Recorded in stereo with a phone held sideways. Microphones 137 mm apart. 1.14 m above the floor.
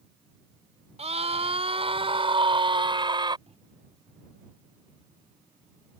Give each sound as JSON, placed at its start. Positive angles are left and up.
{"t": 1.0, "sound": "a scream", "side_deg": -50}
{"t": 3.5, "sound": "a microwave", "side_deg": -50}